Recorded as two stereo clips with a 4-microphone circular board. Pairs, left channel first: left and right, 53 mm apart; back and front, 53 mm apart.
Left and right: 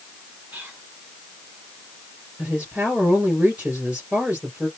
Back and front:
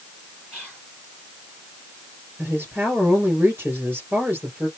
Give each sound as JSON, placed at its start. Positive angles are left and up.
{"t": 0.5, "sound": "whispering", "azimuth_deg": -45, "distance_m": 2.0}
{"t": 2.4, "sound": "a woman speaking", "azimuth_deg": -35, "distance_m": 2.5}